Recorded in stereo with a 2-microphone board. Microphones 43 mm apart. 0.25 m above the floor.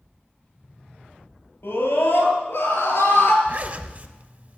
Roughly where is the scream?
Left.